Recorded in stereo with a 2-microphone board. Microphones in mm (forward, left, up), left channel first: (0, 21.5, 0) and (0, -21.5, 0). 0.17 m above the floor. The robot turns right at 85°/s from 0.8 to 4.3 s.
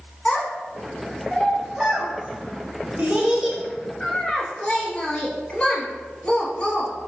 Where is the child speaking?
30° left (ahead or behind), 0.8 m; by 6.9 s 25° left (ahead or behind), 0.8 m.